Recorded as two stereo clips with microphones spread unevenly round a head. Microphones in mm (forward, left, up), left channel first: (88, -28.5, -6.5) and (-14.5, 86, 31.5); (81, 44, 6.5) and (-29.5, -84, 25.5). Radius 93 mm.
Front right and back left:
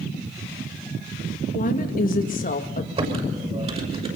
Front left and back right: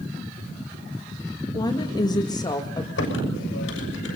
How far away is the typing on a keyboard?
About 6.5 m.